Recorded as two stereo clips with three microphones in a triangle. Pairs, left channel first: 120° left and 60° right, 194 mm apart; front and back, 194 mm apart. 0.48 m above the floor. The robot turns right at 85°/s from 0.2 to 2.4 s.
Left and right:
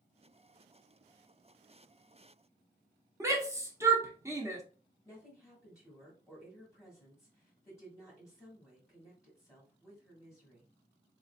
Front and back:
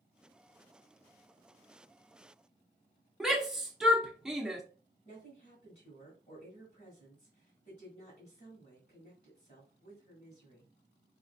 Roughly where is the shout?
Right.